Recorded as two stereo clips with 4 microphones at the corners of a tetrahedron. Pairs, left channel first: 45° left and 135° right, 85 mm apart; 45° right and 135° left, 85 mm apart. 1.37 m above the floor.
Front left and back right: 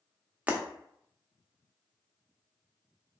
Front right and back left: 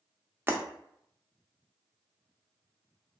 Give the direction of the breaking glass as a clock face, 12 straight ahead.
6 o'clock.